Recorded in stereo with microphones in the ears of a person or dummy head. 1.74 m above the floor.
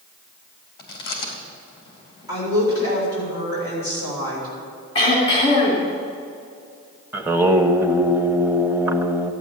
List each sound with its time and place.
0.8 s chewing: 25° left (ahead or behind), 2.5 m
2.3 s a woman speaking: 20° right (ahead or behind), 6.5 m
5.0 s throat clearing: 30° left (ahead or behind), 3.5 m
7.1 s singing: 10° right (ahead or behind), 1.0 m